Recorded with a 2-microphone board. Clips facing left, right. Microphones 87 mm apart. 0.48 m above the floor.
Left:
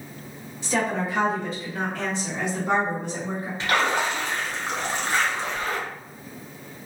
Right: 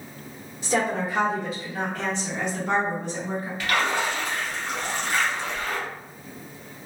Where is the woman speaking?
35° right (ahead or behind), 1.4 m; by 3.5 s 30° left (ahead or behind), 1.8 m.